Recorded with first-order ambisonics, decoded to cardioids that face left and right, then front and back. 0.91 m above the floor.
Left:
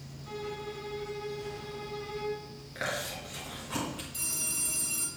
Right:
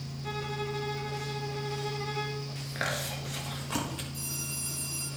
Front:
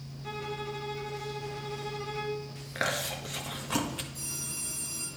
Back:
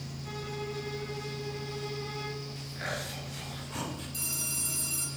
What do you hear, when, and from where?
0.2 s a violin: 65° right, 2 m
2.8 s chewing: 25° right, 1.2 m
4.1 s a phone ringing: 155° left, 3 m